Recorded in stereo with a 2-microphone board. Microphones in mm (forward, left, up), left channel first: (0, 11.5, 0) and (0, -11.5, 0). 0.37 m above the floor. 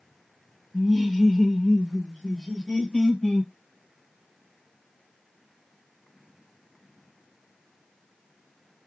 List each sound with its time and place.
0.7 s laughter: 10° right (ahead or behind), 0.9 m; by 3.5 s 40° left (ahead or behind), 1.5 m